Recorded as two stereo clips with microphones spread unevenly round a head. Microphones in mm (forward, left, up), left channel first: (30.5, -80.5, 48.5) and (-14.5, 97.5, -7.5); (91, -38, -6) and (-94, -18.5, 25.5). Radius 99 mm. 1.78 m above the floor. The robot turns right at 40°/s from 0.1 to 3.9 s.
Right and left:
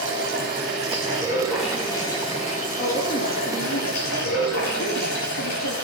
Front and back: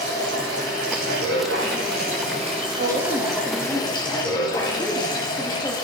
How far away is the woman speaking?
About 4 m.